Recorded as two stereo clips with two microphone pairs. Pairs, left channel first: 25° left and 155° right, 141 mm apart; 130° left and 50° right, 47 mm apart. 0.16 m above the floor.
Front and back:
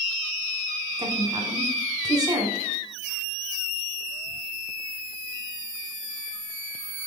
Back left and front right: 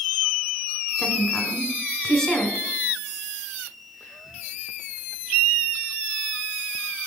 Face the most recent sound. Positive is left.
turn(degrees=-165)